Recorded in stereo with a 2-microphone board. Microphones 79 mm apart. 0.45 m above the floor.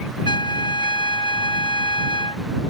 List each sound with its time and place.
0.2 s a trumpet: 80° left